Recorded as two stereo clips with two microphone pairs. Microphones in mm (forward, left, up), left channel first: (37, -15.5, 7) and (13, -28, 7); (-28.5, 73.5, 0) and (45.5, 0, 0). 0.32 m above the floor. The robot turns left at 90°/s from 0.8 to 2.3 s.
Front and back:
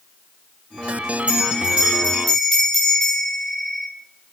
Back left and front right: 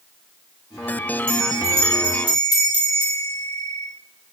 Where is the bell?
145° right, 1.5 m; by 3.9 s 120° left, 1.5 m.